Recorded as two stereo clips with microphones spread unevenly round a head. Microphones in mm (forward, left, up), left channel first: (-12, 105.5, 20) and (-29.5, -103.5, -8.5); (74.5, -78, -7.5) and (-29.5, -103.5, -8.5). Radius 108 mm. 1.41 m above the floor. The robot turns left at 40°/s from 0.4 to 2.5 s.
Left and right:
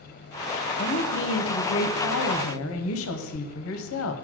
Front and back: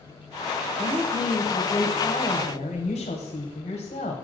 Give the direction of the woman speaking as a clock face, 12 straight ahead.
8 o'clock.